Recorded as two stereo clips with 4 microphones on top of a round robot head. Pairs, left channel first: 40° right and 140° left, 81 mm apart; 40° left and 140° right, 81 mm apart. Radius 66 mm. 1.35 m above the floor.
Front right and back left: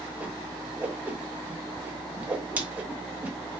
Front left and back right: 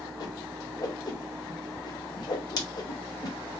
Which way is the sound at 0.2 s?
70° left.